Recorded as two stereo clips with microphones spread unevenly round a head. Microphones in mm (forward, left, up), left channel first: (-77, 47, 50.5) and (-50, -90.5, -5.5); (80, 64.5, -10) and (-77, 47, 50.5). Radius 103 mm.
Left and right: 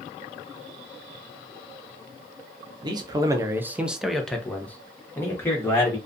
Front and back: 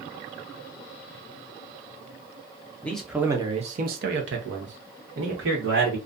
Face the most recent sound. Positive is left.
turn(degrees=180)